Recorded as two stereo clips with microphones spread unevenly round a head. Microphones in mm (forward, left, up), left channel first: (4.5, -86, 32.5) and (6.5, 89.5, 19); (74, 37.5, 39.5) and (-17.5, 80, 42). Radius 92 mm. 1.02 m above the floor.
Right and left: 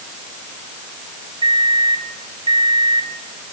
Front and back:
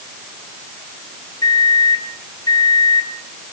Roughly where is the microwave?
Ahead left.